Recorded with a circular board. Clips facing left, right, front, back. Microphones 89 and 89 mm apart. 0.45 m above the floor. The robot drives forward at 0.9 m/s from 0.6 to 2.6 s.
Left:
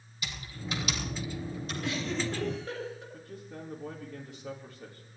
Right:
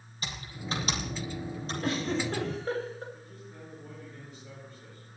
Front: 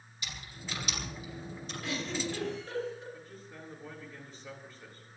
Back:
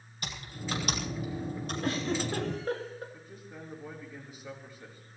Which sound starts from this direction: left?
A man speaking, at 3.1 s.